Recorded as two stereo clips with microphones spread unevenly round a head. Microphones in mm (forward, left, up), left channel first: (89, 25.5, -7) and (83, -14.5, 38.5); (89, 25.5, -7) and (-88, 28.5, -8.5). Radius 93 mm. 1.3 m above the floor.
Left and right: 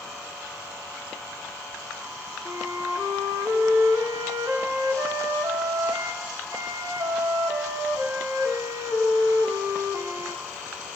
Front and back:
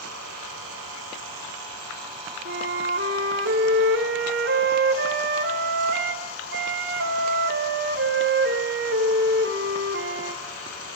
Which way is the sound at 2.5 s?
145° right.